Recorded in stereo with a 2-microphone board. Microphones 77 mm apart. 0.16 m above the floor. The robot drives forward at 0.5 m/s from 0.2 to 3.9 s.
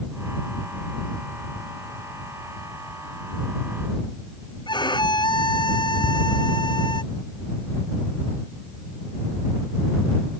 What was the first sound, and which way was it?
A violin, 80° left.